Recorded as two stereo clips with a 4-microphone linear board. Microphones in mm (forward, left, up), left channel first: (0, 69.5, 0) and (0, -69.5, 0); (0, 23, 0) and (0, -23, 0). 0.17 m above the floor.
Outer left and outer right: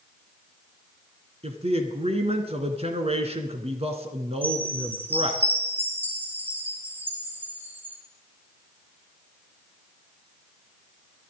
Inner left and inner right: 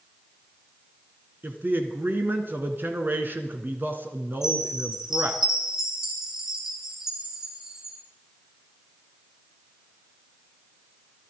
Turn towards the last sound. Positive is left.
turn(degrees=-15)  # may be behind; listen again after turning